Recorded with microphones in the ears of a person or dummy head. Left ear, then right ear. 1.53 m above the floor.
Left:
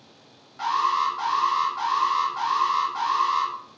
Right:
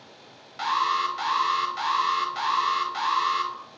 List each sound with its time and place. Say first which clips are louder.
0.6 s an alarm: left 2 dB; 65° right (ahead or behind), 0.7 m